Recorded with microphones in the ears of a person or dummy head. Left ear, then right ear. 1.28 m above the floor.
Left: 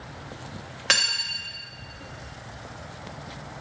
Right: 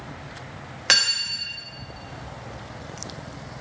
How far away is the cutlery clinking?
About 1.1 m.